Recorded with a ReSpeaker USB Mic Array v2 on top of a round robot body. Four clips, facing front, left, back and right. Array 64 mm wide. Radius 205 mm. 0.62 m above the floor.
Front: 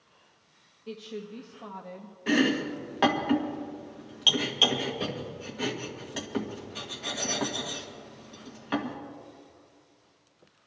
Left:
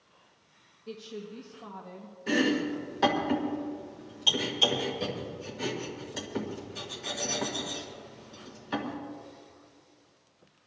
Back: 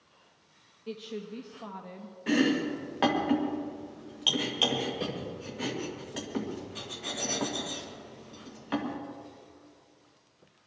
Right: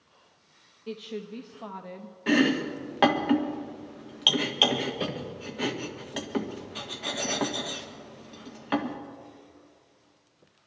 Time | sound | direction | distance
0.9 | a woman speaking | 100° right | 1.4 m
2.3 | chopping | 80° right | 1.9 m